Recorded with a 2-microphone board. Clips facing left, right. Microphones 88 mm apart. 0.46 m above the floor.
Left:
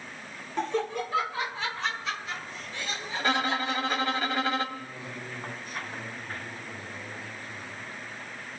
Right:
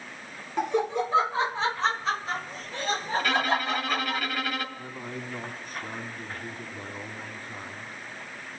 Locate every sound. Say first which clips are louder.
0.6 s laughter: right 3 dB; 10° right (ahead or behind), 0.8 m; by 4.2 s 40° right (ahead or behind), 3.5 m
3.2 s a violin: left 1 dB; 30° left (ahead or behind), 2 m
4.8 s a man speaking: right 2 dB; 40° right (ahead or behind), 4.5 m